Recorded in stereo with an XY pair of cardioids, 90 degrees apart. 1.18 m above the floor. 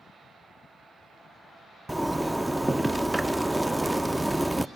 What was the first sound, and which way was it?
A zipper, 10° right.